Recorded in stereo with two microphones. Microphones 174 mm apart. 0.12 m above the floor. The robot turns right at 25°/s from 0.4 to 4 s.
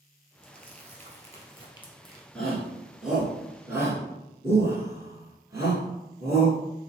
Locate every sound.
0.4 s crumpling: 50° right (ahead or behind), 1.5 m; by 2.2 s 20° right (ahead or behind), 1.5 m
2.4 s a shout: 5° left (ahead or behind), 1.2 m; by 6.6 s 15° right (ahead or behind), 1.2 m